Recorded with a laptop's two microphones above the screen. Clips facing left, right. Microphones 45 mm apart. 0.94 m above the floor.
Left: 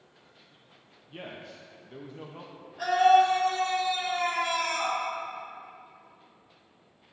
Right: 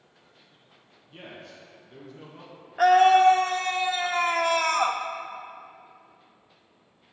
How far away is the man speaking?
About 0.6 m.